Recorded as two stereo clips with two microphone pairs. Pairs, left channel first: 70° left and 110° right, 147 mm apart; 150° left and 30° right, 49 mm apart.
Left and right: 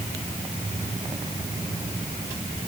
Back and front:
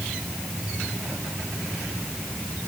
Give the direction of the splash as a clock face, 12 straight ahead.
No splash in this recording.